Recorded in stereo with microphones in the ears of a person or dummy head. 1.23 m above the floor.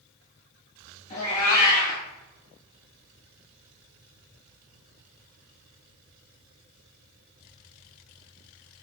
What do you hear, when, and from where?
1.1 s a cat meowing: 35° left (ahead or behind), 1.0 m